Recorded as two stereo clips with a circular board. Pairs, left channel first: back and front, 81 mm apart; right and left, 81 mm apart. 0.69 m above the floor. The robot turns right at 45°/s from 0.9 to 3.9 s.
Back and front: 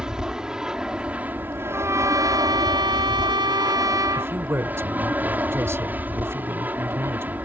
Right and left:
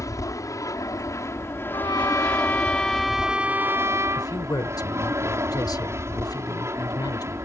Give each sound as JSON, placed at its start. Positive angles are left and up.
{"t": 0.0, "sound": "an aircraft", "azimuth_deg": -80}
{"t": 1.7, "sound": "a trumpet", "azimuth_deg": -60}
{"t": 4.2, "sound": "a man speaking", "azimuth_deg": -55}